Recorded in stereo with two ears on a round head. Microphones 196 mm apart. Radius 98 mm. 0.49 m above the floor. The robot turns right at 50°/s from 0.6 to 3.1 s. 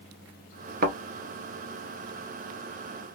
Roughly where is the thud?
Right.